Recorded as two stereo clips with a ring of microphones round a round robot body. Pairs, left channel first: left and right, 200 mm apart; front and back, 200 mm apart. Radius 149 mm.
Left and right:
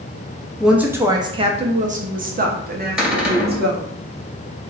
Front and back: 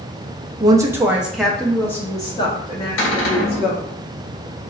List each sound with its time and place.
0.6 s a woman speaking: 175° right, 0.8 m; by 3.8 s 60° right, 1.7 m
3.0 s a cupboard door: 5° right, 2 m